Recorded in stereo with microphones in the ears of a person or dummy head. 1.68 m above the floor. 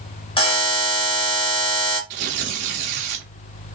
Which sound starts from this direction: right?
Tearing paper, at 2.1 s.